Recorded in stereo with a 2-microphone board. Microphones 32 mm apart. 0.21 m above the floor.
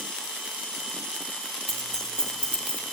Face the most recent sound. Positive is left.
turn(degrees=40)  # may be behind; listen again after turning